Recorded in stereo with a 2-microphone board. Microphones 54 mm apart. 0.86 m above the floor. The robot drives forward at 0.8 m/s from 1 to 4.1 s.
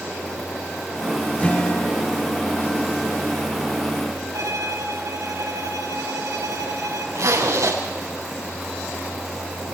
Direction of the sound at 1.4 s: 30° left (ahead or behind).